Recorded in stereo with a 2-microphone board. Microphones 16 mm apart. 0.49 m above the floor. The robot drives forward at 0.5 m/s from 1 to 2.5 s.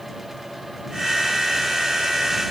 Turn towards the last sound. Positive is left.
No sound to turn to.